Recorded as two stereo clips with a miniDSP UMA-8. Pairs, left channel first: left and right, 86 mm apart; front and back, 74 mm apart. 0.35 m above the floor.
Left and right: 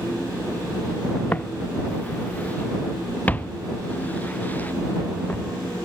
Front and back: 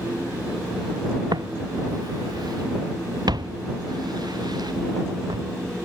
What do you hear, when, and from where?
1.3 s footsteps: 160° left